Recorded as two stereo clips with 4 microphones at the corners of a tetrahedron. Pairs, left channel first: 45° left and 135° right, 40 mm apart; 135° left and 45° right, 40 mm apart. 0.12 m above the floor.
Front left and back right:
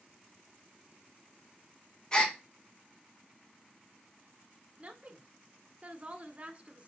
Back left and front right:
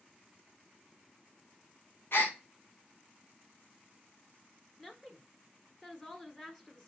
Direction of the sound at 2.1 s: 110° left.